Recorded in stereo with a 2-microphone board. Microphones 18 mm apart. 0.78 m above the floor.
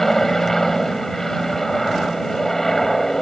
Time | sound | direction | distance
0.0 | an aircraft | 25° left (ahead or behind) | ?